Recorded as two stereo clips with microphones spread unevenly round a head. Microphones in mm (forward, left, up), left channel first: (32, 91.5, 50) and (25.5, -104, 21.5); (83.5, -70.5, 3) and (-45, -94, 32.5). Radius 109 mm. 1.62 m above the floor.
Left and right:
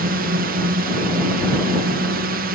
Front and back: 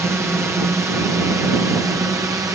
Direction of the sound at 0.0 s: 95° right.